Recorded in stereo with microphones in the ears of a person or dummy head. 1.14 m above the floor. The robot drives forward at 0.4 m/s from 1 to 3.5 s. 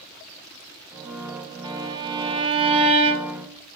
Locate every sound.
1.6 s a violin: 25° right (ahead or behind), 2.0 m; by 3.5 s 40° right (ahead or behind), 1.4 m